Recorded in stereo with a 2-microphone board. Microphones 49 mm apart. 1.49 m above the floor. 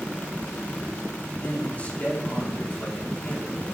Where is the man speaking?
30° left (ahead or behind), 4 m.